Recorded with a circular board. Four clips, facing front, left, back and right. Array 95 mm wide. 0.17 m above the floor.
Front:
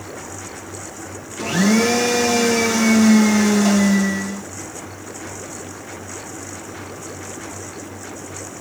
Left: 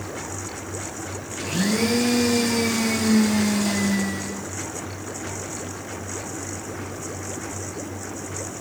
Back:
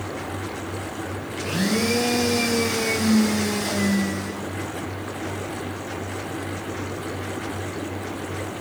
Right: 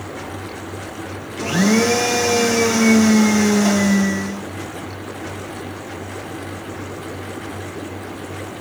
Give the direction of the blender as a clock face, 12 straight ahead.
2 o'clock.